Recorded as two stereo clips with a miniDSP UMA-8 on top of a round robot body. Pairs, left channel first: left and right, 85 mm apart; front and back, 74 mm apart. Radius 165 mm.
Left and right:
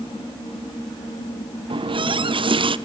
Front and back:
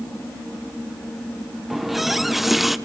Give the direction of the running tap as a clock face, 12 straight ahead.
3 o'clock.